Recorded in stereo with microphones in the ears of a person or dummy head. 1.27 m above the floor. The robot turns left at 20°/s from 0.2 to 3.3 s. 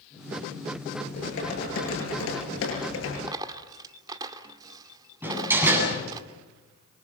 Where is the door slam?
10° right (ahead or behind), 8.5 m.